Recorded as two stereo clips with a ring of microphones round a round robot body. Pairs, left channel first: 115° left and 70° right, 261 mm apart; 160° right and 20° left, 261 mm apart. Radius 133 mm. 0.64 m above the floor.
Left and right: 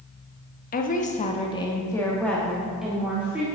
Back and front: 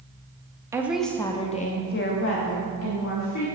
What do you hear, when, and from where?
0.7 s a woman speaking: 95° left, 1.0 m; by 3.5 s 150° right, 2.0 m